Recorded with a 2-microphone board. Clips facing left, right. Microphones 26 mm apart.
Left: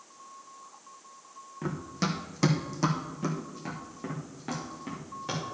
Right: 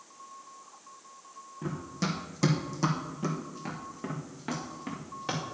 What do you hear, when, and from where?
1.6 s running footsteps: 35° left (ahead or behind), 1.4 m; by 5.5 s 25° right (ahead or behind), 2.5 m